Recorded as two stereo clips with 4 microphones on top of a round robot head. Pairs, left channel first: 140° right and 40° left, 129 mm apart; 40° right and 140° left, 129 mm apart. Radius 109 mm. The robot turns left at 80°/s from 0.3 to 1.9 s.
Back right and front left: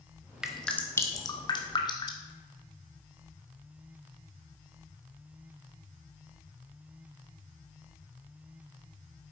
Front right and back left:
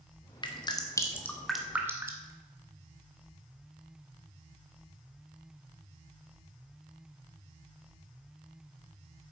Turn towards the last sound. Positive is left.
turn(degrees=-160)